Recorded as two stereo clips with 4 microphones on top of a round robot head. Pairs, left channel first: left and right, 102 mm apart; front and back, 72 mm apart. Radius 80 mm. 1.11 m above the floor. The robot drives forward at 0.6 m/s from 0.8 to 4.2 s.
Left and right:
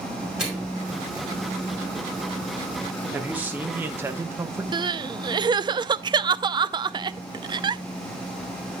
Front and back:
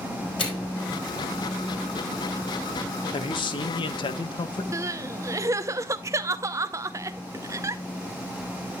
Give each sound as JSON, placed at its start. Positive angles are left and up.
{"t": 0.4, "sound": "a microwave", "azimuth_deg": -5, "distance_m": 4.0}
{"t": 3.1, "sound": "a man speaking", "azimuth_deg": -10, "distance_m": 1.4}
{"t": 4.7, "sound": "crying", "azimuth_deg": -135, "distance_m": 0.6}